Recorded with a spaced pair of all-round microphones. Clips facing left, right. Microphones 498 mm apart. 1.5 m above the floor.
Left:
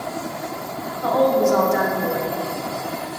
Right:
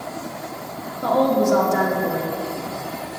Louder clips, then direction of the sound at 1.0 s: Even; 55° right (ahead or behind).